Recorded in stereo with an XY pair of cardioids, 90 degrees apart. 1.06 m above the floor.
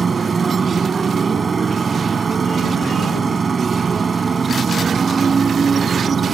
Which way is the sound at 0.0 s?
35° right.